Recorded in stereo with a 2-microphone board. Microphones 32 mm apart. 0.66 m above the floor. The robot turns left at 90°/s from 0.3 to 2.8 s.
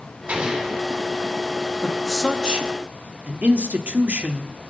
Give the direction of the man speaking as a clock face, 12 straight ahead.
11 o'clock.